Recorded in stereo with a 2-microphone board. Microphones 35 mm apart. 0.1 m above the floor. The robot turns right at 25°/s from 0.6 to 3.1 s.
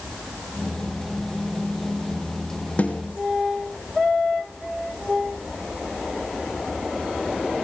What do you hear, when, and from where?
2.8 s a snare drum: 40° left (ahead or behind), 3.5 m; by 3.0 s 45° left (ahead or behind), 3.5 m